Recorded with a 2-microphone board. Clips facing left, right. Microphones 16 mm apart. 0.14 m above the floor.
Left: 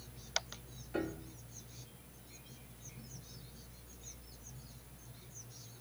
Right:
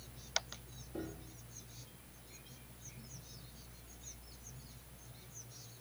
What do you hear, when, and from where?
0.9 s a piano: 60° left (ahead or behind), 1.9 m